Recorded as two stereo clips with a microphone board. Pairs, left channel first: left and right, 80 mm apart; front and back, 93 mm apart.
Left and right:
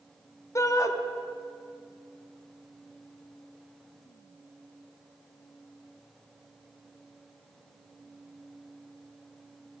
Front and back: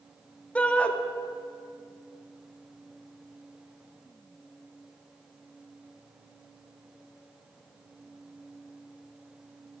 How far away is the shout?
About 0.6 m.